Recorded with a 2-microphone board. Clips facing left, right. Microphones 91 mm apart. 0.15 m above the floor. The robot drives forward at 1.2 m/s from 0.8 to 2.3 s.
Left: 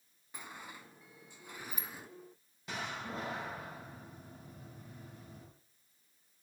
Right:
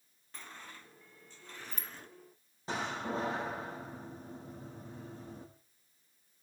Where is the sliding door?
10° left (ahead or behind), 1.1 m.